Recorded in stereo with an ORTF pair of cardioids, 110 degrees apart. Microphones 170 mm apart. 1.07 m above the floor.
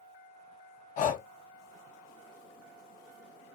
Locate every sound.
1.0 s breathing: 55° left, 0.6 m